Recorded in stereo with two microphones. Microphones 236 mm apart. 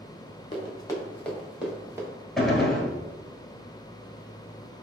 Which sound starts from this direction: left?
Running footsteps, at 0.5 s.